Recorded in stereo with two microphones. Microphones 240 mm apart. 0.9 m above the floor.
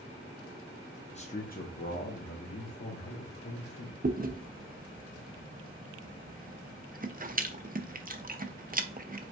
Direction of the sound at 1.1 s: 25° left (ahead or behind).